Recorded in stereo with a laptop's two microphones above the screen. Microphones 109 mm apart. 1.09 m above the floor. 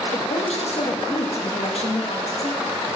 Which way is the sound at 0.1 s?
70° left (ahead or behind).